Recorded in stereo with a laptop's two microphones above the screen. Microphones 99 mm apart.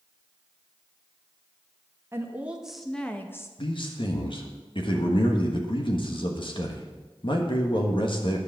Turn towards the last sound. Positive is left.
turn(degrees=55)  # may be behind; listen again after turning